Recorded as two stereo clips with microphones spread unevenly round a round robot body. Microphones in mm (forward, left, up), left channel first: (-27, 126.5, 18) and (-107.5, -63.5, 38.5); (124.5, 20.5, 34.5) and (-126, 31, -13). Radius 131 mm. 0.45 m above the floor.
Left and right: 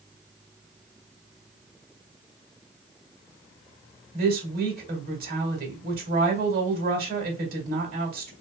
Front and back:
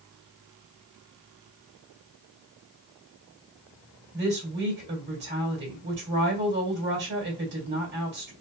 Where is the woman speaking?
155° right, 2.0 m.